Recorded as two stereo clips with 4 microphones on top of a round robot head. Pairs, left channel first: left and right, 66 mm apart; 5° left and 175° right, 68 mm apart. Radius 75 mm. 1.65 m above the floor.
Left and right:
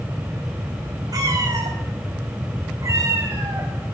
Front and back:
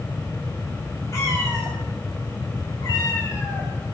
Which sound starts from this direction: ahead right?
A cat meowing, at 1.1 s.